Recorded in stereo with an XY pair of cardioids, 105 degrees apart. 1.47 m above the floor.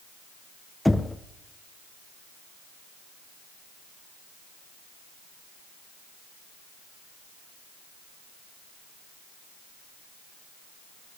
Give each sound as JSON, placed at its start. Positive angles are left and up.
{"t": 0.8, "sound": "knocking", "azimuth_deg": 5, "distance_m": 0.8}